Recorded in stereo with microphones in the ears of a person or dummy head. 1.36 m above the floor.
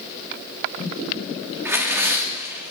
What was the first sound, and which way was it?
Tearing paper, 20° right (ahead or behind).